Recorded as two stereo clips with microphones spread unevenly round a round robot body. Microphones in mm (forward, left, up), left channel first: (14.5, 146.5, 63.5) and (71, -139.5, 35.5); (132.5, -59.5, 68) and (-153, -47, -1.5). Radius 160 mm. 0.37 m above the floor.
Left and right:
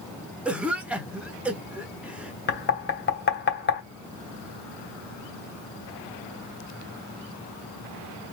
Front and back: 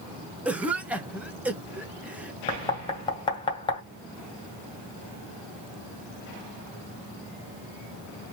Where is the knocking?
80° left, 1.3 m.